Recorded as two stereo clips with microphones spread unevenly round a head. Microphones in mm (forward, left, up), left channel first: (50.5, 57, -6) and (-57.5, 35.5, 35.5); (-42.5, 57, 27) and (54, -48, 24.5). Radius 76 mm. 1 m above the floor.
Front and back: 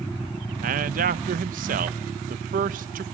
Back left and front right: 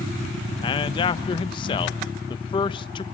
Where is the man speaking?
170° right, 0.7 m.